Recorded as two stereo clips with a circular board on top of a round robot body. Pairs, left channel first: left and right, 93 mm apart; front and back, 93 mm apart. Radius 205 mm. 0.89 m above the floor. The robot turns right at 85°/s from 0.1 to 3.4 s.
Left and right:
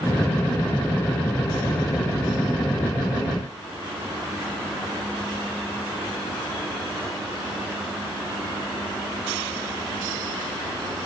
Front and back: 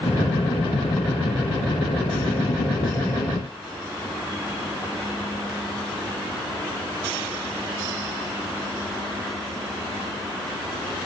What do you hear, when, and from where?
Only background noise.